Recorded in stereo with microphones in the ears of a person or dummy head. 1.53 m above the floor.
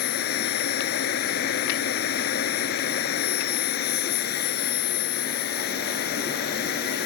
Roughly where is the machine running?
Left.